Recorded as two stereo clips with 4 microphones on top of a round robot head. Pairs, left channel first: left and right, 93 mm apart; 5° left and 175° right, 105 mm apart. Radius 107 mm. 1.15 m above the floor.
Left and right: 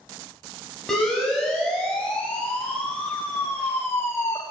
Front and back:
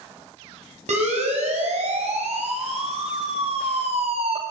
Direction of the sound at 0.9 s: 175° left.